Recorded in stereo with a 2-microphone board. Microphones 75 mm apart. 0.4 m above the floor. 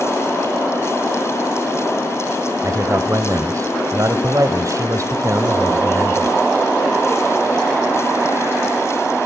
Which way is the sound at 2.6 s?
45° right (ahead or behind).